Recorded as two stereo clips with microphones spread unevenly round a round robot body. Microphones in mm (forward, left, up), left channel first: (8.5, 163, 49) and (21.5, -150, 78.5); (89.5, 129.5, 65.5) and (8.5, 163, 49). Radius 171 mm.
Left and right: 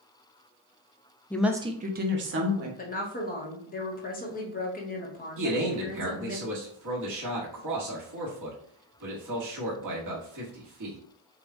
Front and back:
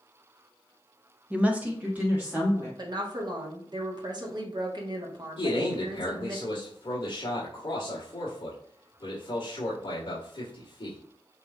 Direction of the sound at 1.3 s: 155° left.